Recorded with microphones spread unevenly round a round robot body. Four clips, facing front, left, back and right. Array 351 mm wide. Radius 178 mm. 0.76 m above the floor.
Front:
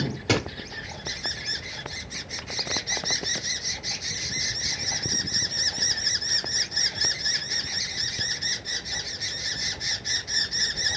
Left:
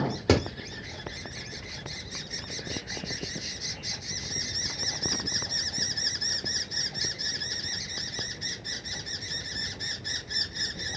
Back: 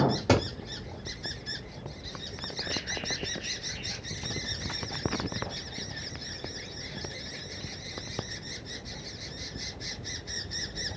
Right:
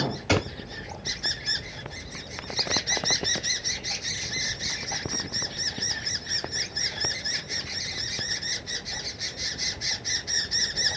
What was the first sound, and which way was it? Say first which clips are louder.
A crack: left 2 dB, even; 100° left.